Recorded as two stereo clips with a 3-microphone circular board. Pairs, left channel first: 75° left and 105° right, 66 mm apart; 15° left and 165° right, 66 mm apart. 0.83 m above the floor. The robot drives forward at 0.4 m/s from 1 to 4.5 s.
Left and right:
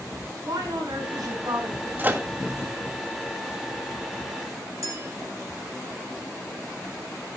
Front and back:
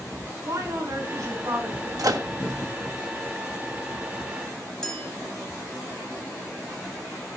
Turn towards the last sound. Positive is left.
turn(degrees=-65)